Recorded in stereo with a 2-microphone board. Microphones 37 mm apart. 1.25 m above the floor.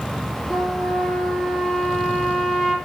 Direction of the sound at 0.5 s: 10° left (ahead or behind).